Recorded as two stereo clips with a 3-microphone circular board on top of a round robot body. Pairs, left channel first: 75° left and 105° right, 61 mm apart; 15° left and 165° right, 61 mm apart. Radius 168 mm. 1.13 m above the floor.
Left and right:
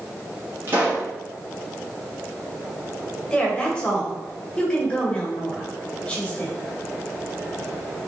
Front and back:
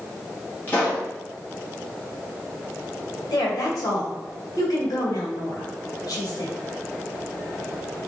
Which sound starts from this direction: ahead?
A woman speaking, at 3.3 s.